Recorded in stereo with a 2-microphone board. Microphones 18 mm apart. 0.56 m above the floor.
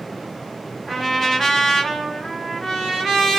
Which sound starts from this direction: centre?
A trumpet, at 0.9 s.